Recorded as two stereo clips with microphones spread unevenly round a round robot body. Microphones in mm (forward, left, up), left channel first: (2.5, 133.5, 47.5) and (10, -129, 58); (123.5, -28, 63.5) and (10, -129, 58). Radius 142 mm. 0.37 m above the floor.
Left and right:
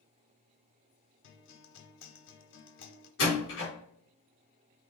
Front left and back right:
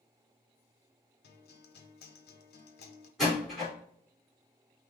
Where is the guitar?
50° left, 0.8 m.